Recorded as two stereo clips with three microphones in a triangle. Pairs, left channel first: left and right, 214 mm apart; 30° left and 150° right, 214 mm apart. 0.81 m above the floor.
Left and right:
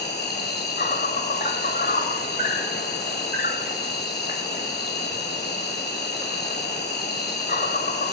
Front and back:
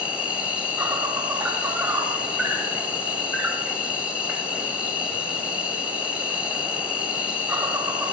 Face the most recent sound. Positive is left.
turn(degrees=125)